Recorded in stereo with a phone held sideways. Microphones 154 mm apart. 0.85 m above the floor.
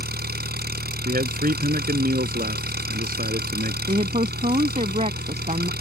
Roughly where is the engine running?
Right.